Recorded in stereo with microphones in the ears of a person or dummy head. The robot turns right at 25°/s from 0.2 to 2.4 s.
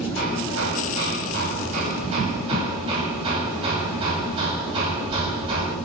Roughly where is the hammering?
Right.